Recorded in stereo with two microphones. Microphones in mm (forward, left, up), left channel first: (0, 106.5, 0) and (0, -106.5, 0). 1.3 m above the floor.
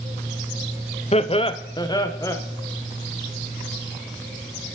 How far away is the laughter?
About 0.6 m.